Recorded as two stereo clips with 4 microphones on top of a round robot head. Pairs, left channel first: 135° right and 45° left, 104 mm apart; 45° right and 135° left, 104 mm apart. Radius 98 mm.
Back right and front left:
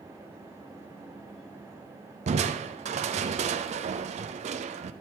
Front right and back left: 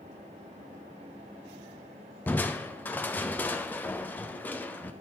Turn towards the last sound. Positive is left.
turn(degrees=30)